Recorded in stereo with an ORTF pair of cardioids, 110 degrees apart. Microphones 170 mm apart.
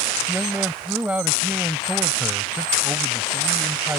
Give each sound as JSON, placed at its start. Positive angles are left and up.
{"t": 0.3, "sound": "a man speaking", "azimuth_deg": -10}